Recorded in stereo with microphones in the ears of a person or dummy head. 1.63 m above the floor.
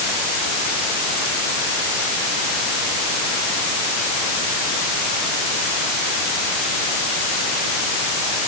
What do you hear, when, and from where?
Only background noise.